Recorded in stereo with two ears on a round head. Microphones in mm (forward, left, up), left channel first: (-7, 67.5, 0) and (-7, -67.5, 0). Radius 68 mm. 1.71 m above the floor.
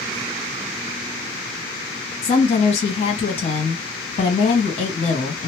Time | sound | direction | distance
2.2 | a woman speaking | 40° left (ahead or behind) | 1.7 m